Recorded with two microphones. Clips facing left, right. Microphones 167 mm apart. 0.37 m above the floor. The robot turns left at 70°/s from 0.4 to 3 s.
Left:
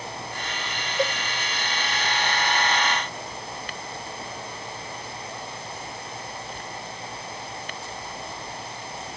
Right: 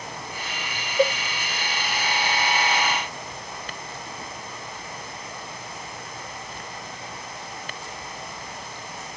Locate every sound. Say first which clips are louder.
1.0 s a cowbell: right 5 dB; 25° right (ahead or behind)